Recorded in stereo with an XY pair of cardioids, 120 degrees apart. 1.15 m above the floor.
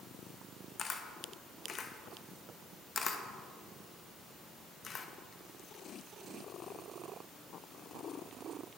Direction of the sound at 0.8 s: 40° left.